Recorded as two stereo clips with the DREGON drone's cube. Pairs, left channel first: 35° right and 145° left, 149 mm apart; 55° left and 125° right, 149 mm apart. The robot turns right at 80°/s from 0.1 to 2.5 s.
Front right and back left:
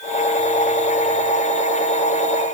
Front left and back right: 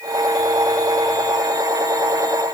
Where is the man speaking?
I don't hear a man speaking.